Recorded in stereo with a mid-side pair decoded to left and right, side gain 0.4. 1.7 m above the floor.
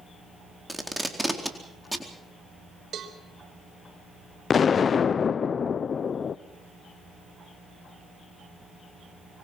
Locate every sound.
0.7 s tape being pulled: 5° right, 4 m
2.9 s a cowbell: 60° right, 3.5 m
4.5 s an explosion: 50° left, 0.7 m